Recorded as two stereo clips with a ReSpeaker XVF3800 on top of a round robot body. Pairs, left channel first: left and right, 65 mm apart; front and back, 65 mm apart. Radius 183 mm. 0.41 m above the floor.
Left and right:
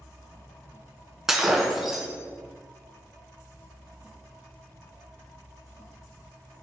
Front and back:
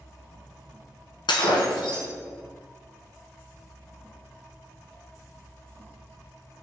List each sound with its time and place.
1.3 s breaking glass: 5° right, 1.5 m